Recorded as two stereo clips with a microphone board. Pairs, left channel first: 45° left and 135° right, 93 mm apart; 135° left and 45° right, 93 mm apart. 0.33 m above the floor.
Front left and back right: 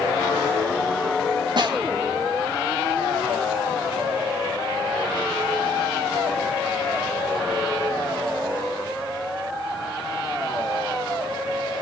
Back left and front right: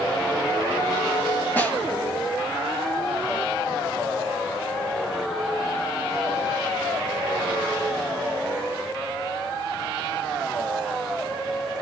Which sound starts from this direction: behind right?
A snare drum, at 1.6 s.